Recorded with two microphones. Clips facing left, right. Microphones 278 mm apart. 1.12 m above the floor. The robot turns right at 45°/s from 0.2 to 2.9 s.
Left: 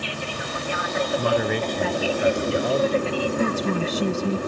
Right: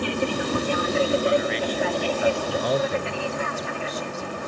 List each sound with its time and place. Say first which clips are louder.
0.0 s an aircraft: right 8 dB; 75° right; by 4.5 s 45° left
1.2 s a man speaking: even; 110° left; by 3.2 s 175° right
3.4 s a woman speaking: left 8 dB; 75° left (ahead or behind)